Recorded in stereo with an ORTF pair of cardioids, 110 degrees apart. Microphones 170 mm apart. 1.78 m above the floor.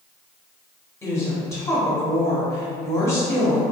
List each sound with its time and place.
1.0 s a woman speaking: 20° left, 1.1 m